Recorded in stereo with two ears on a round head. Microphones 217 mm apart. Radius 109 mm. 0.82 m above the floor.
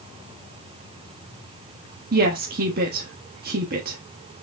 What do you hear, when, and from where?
2.1 s a woman speaking: 40° right (ahead or behind), 1.5 m